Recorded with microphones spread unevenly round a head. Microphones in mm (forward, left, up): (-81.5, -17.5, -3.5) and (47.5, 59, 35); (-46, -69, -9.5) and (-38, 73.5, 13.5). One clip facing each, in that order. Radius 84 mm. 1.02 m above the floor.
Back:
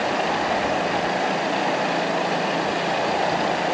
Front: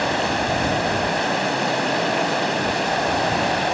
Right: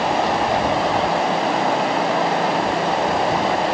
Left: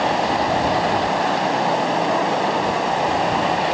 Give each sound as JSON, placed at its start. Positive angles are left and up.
{"t": 0.0, "sound": "running water", "azimuth_deg": 0}